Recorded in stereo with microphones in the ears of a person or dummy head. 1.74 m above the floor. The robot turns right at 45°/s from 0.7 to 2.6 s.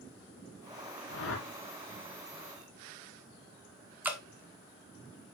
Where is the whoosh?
70° left (ahead or behind), 2.5 m; by 1.5 s 85° left, 2.5 m.